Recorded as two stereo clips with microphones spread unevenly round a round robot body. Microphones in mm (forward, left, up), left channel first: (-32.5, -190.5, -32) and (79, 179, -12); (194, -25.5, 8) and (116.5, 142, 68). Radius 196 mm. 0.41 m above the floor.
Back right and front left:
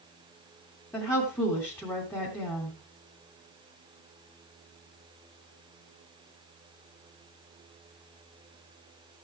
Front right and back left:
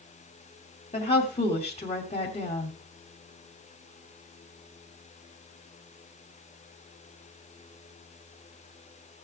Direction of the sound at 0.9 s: 25° right.